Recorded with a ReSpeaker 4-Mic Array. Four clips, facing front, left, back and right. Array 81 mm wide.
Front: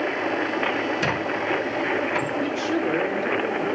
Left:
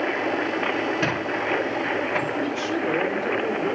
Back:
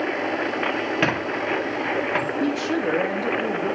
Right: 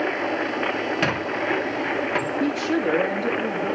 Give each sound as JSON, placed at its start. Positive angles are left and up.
{"t": 1.0, "sound": "a squeak", "azimuth_deg": -170, "distance_m": 2.0}
{"t": 2.4, "sound": "a woman speaking", "azimuth_deg": -140, "distance_m": 3.0}